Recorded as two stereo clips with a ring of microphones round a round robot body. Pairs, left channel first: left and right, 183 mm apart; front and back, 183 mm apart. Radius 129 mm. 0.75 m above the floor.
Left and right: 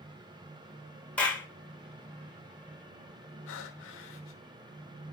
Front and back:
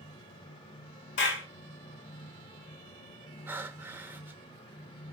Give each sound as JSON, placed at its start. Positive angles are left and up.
{"t": 1.2, "sound": "a clap", "azimuth_deg": 5, "distance_m": 2.5}
{"t": 3.5, "sound": "breathing", "azimuth_deg": 100, "distance_m": 1.0}